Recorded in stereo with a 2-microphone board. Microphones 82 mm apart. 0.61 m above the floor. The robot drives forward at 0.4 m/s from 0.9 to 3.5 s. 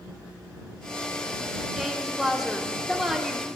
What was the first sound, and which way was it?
A woman speaking, 5° right (ahead or behind).